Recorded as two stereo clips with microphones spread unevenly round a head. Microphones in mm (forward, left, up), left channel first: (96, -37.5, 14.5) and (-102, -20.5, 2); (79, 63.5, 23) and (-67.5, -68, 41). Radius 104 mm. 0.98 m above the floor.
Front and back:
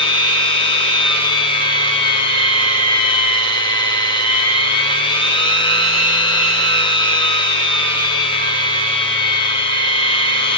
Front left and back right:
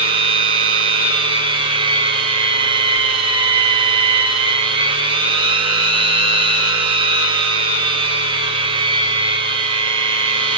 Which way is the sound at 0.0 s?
70° right.